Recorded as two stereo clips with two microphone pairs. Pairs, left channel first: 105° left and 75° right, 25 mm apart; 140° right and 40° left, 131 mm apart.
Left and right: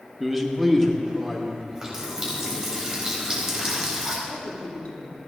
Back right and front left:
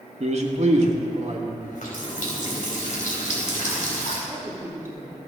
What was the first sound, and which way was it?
A man speaking, 10° left.